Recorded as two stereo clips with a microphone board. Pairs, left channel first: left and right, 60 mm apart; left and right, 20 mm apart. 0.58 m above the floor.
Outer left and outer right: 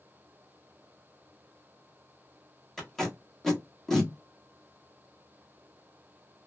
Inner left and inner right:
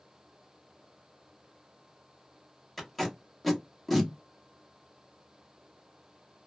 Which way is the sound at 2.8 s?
5° left (ahead or behind).